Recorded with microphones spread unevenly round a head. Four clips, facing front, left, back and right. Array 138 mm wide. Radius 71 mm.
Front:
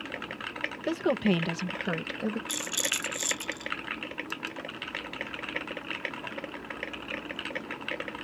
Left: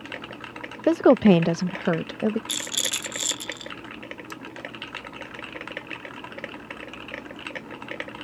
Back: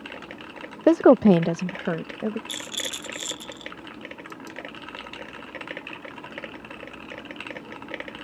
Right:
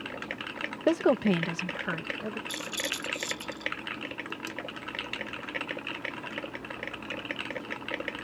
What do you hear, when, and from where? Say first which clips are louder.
0.9 s a woman speaking: left 8 dB, back 12 dB; 170° left; by 2.4 s 95° left
2.5 s a rattle: left 1 dB, front 1 dB; 70° left